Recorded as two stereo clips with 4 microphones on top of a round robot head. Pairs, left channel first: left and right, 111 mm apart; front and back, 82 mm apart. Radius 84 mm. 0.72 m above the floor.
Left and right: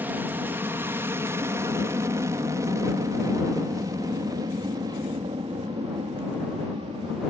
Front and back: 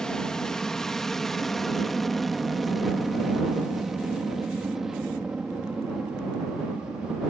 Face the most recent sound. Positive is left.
turn(degrees=-105)